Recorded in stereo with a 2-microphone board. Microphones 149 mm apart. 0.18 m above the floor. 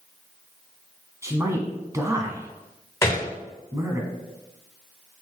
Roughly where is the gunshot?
Centre.